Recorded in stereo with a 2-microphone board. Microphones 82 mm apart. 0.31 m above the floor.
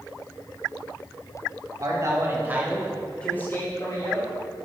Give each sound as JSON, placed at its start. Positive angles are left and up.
{"t": 1.8, "sound": "a man speaking", "side_deg": -50, "distance_m": 2.0}